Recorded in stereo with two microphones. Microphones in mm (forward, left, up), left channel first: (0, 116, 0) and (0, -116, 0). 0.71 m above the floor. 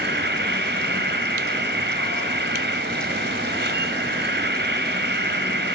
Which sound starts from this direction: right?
An insect, at 0.0 s.